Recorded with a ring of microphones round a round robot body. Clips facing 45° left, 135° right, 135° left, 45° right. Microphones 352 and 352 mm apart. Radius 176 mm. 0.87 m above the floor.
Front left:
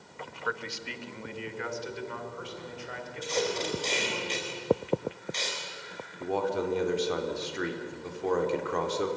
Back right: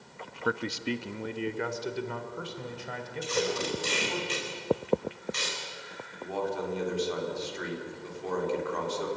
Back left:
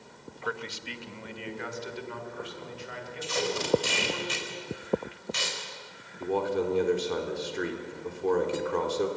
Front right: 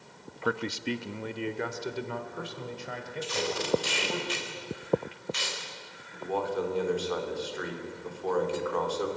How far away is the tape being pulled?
About 4.5 m.